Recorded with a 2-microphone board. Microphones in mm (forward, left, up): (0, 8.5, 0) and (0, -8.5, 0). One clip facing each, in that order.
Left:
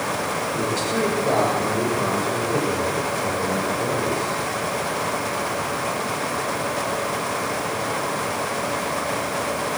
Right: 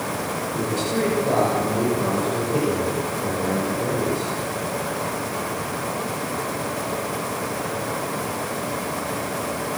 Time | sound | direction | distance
0.5 | a man speaking | 35° left (ahead or behind) | 5.5 m